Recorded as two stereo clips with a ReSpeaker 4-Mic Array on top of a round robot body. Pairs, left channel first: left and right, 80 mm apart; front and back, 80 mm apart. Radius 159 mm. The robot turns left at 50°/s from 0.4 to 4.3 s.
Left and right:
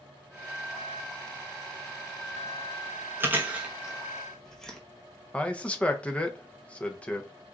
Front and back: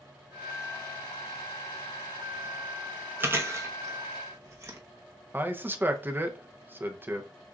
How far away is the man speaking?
About 0.9 m.